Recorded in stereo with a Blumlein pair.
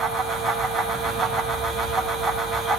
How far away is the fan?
About 1.0 m.